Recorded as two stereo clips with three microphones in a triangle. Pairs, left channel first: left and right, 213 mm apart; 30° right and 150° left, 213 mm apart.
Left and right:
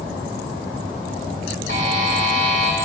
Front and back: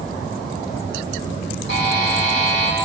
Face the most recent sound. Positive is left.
turn(degrees=-60)